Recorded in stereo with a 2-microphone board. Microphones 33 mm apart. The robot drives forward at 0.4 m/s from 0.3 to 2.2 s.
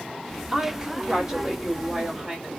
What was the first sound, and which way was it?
A woman speaking, 20° right (ahead or behind).